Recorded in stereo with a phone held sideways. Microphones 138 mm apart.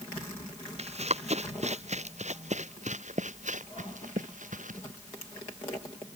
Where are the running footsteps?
50° right (ahead or behind); by 4.8 s 65° right (ahead or behind).